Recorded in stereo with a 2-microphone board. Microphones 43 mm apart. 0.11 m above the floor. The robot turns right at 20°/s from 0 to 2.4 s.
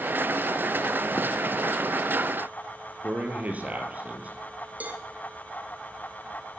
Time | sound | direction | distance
3.0 | a man speaking | 35° right (ahead or behind) | 2 m
4.8 | a cowbell | 40° right (ahead or behind) | 1.4 m